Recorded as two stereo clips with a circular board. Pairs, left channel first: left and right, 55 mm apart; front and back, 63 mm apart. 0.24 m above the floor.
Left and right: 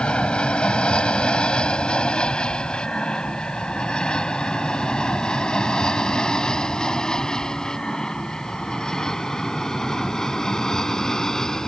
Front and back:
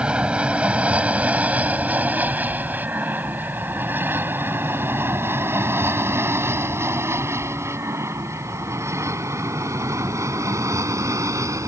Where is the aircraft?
135° left; by 11.7 s 170° left.